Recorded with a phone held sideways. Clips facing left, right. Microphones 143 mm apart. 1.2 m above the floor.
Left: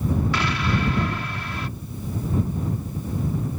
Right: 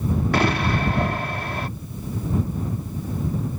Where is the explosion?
50° right (ahead or behind).